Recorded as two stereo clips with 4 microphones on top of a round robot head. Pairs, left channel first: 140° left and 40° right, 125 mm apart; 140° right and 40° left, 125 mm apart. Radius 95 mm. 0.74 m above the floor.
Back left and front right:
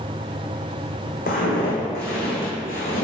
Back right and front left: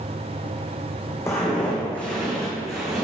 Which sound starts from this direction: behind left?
Footsteps, at 1.3 s.